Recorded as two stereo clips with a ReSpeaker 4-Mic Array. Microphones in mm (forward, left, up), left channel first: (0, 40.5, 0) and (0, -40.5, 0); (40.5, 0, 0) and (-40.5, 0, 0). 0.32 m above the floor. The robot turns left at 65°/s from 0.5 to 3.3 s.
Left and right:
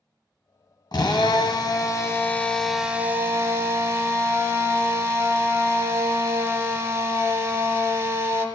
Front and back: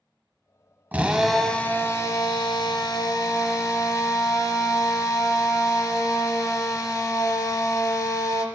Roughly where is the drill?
Behind left.